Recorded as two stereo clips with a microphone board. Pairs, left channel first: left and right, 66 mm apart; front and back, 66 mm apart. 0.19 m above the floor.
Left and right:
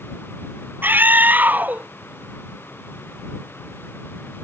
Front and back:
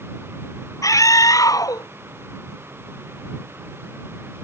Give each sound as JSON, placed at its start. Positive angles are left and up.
{"t": 0.8, "sound": "a scream", "azimuth_deg": -30}